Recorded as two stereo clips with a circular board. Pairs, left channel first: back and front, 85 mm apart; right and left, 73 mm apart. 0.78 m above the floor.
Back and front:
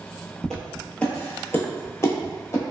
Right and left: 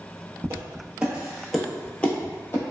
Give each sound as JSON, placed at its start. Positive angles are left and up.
{"t": 0.4, "sound": "footsteps", "azimuth_deg": 95, "distance_m": 0.9}